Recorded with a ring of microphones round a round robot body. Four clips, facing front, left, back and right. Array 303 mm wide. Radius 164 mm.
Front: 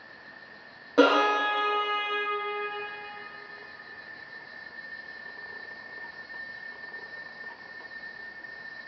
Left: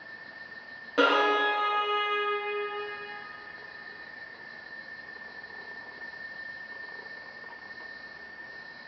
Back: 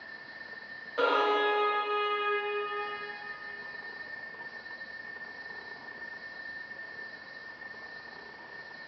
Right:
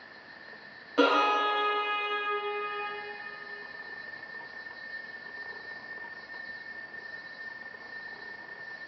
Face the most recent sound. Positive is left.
turn(degrees=15)